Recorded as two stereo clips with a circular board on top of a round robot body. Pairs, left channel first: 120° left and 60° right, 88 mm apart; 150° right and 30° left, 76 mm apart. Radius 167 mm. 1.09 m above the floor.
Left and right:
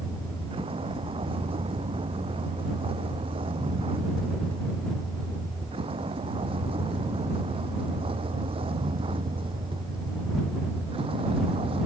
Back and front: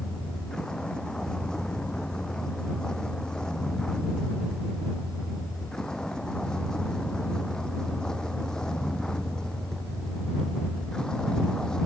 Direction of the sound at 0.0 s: 70° right.